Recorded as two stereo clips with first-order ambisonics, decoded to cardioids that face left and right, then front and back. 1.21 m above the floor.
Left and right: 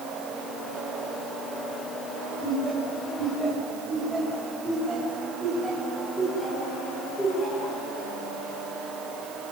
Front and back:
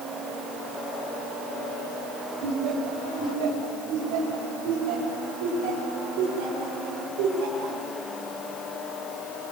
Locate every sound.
2.4 s laughter: 170° right, 8 m; by 7.8 s 175° left, 6 m